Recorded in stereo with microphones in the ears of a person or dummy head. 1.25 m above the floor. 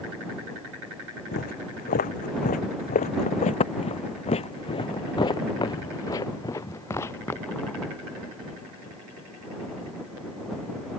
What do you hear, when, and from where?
1.3 s footsteps: 45° left (ahead or behind); by 7.9 s 5° left (ahead or behind)